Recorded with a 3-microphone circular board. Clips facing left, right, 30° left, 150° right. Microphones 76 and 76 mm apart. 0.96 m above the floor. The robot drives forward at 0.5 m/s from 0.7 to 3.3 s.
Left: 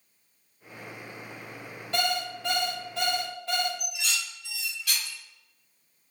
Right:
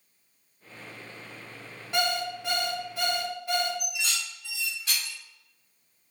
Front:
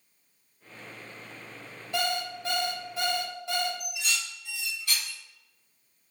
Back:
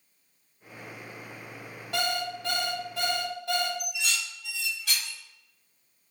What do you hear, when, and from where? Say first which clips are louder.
1.9 s an alarm clock: right 1 dB, even; 170° right, 2.0 m
3.8 s dishes clattering: even, back 1 dB; 150° right, 1.3 m